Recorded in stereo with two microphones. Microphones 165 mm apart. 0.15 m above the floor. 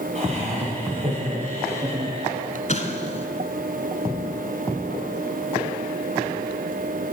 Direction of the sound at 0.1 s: 40° right (ahead or behind).